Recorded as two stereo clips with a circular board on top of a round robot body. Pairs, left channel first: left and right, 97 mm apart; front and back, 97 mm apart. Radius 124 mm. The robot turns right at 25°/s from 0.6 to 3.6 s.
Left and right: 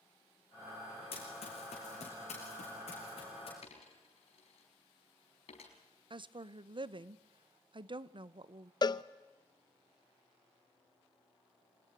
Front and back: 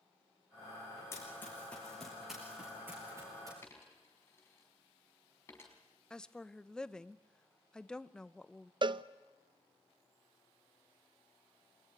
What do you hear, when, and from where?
1.1 s running footsteps: 65° left, 5 m; by 3.5 s 125° left, 6.5 m
3.6 s a dropped coin: 65° left, 5 m
6.1 s a woman speaking: 80° right, 0.9 m
8.8 s a cowbell: 140° left, 0.6 m